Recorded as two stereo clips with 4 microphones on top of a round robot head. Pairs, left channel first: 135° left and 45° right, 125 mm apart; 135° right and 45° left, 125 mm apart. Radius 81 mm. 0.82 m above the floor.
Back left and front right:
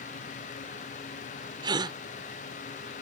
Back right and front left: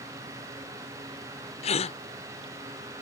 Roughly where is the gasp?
Right.